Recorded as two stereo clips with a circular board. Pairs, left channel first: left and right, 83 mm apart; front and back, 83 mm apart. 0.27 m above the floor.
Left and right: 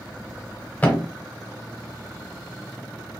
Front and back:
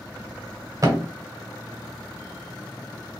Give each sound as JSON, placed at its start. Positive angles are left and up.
{"t": 0.8, "sound": "a thud", "azimuth_deg": 155, "distance_m": 0.7}